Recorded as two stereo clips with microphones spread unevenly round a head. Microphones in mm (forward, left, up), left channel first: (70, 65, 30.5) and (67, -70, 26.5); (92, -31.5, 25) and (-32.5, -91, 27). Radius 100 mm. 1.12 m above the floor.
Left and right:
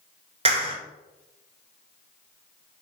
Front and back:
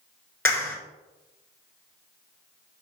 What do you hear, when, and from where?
0.5 s a clap: 45° right, 3.5 m